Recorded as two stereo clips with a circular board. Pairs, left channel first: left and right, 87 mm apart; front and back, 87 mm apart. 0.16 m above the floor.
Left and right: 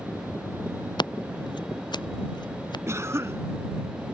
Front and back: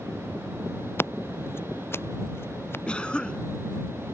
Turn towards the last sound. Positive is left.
turn(degrees=-70)